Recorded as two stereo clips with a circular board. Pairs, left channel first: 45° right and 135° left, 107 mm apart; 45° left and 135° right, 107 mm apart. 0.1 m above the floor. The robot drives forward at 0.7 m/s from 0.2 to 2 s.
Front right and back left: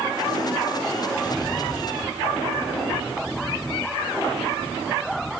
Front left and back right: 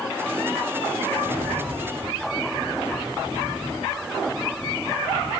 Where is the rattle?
95° right, 3.5 m; by 5.3 s 105° right, 3.5 m.